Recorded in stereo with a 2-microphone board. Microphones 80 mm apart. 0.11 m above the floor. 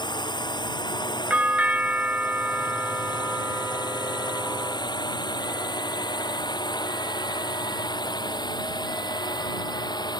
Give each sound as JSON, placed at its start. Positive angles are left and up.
{"t": 0.0, "sound": "a drone", "side_deg": 65}
{"t": 1.3, "sound": "a doorbell", "side_deg": -20}